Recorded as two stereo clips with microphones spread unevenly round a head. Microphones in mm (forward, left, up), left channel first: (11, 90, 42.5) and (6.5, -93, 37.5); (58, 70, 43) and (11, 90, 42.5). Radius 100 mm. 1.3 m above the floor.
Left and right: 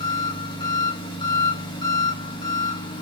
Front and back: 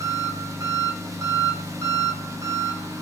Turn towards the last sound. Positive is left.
turn(degrees=155)